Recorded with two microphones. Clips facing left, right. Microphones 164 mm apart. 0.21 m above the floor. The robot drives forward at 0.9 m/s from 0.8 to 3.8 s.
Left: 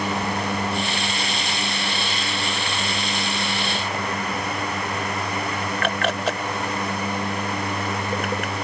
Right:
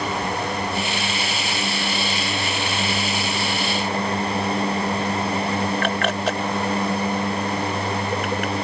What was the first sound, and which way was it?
Only background noise.